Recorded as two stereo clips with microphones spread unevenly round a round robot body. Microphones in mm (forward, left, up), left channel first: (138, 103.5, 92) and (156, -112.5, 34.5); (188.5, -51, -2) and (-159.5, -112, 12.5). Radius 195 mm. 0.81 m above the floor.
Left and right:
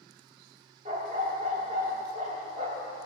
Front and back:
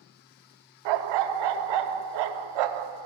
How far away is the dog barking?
About 0.6 m.